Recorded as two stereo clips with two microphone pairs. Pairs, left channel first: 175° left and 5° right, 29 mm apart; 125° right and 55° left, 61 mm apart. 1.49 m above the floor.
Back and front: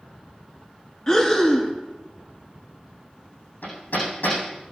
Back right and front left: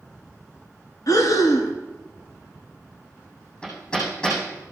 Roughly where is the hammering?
Behind.